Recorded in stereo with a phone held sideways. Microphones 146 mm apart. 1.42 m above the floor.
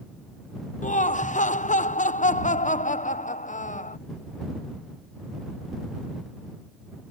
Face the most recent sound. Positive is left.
turn(degrees=60)  # may be behind; listen again after turning